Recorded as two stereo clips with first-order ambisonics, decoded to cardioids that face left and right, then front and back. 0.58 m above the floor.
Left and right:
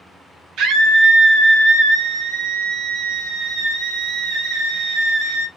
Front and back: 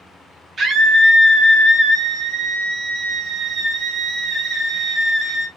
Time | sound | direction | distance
0.6 | a scream | 120° right | 0.9 m